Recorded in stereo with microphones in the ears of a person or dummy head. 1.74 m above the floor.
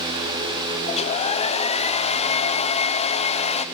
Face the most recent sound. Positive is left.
turn(degrees=35)  # may be behind; listen again after turning